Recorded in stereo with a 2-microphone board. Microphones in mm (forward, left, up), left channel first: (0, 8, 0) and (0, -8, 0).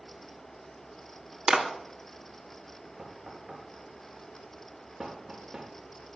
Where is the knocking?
25° right (ahead or behind), 4 m.